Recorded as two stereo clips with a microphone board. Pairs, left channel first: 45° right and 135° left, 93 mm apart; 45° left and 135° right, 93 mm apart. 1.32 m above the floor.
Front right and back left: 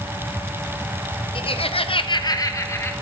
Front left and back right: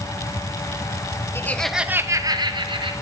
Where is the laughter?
20° right, 0.8 m; by 2.9 s 110° right, 1.5 m.